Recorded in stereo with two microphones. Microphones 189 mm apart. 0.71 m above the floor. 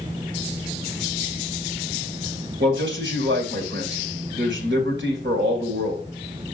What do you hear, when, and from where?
2.6 s a man speaking: 70° right (ahead or behind), 3 m